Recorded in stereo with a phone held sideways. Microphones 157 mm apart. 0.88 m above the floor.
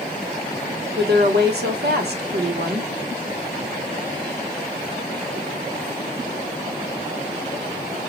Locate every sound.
0.9 s a woman speaking: 75° right (ahead or behind), 1.3 m